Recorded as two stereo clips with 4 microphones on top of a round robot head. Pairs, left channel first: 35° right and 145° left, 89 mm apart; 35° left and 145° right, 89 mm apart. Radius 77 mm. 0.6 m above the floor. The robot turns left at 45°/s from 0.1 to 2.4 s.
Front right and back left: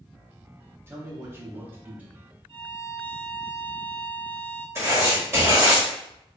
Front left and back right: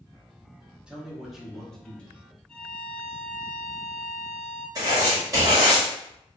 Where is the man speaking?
150° left, 0.9 m; by 2.3 s 85° left, 0.9 m.